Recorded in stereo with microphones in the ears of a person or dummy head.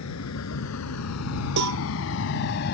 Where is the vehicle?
85° left; by 2.7 s 55° left (ahead or behind).